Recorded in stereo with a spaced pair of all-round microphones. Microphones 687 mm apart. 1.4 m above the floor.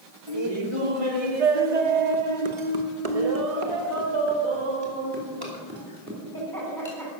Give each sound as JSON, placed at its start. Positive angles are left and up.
{"t": 0.3, "sound": "laughter", "side_deg": -35, "distance_m": 1.7}